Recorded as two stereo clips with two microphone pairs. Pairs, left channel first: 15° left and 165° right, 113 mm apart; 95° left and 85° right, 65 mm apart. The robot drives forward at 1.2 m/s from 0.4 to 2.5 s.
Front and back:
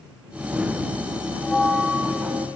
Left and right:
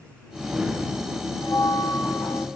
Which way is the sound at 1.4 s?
90° left.